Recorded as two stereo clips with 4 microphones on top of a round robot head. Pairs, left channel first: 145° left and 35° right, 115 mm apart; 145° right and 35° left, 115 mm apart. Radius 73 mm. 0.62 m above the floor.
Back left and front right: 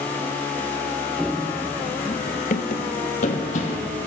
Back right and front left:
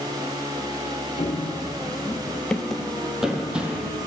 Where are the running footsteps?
125° right, 0.7 m; by 4.0 s 115° left, 1.6 m.